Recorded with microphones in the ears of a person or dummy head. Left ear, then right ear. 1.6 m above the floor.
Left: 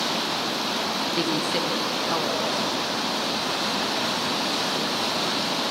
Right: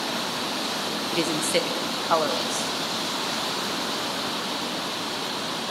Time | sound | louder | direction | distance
1.1 | a woman speaking | right 4 dB | 30° right (ahead or behind) | 0.8 m